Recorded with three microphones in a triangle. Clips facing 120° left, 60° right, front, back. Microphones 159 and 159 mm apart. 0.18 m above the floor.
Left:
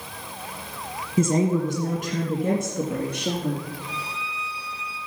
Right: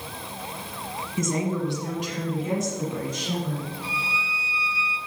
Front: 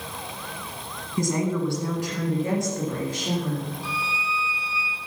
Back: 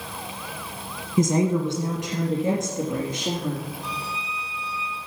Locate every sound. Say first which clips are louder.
1.2 s a woman speaking: left 5 dB, back 4 dB; 135° left, 1.3 m; by 3.7 s 110° left, 3 m
3.8 s a violin: right 1 dB, front 2 dB; 85° left, 1.5 m